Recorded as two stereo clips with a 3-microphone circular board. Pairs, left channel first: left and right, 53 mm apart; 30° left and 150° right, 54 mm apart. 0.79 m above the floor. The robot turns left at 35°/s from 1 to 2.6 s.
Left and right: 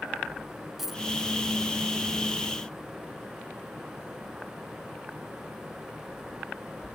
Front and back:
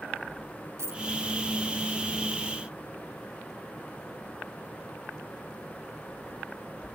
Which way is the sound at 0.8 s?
175° right.